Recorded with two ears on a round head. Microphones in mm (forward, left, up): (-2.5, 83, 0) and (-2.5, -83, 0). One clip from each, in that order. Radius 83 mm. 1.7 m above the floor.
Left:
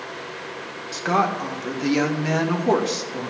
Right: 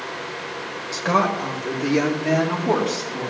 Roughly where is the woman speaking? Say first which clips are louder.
Right 1 dB; centre.